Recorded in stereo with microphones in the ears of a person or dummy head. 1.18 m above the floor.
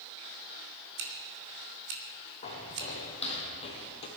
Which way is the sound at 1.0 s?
65° right (ahead or behind).